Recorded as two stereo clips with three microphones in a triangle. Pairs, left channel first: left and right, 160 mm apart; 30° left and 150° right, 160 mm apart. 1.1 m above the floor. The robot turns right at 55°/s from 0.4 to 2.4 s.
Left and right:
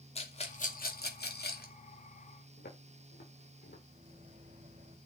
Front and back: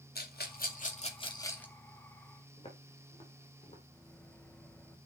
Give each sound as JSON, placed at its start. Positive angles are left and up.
{"t": 0.1, "sound": "a rattle", "azimuth_deg": 40, "distance_m": 2.5}
{"t": 2.6, "sound": "footsteps", "azimuth_deg": 85, "distance_m": 7.5}
{"t": 3.9, "sound": "a microwave", "azimuth_deg": -50, "distance_m": 2.5}